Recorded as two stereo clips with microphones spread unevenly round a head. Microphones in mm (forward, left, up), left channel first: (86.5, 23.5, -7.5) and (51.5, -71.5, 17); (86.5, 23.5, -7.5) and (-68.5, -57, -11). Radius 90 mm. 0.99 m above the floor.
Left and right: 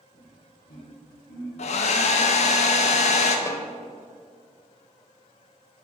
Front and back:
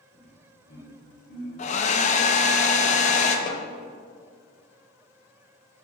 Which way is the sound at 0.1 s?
45° left.